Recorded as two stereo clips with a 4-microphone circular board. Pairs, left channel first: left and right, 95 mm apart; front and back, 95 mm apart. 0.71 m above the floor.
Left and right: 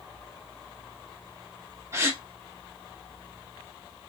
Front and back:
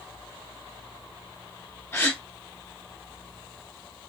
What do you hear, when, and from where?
1.9 s a gasp: 50° right, 1.2 m